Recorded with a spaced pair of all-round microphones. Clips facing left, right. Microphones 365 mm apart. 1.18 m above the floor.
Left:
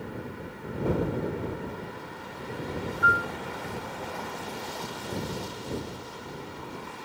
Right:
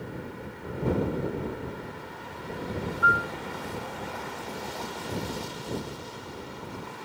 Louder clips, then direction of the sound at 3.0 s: Even; 35° left (ahead or behind).